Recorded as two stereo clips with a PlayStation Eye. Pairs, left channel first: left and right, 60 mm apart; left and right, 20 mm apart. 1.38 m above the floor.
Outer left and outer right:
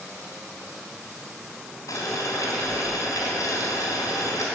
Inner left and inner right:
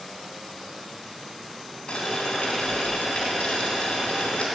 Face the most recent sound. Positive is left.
turn(degrees=70)  # may be behind; listen again after turning